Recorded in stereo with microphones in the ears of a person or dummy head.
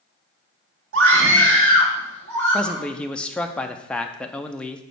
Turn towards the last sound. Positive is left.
turn(degrees=5)  # may be behind; listen again after turning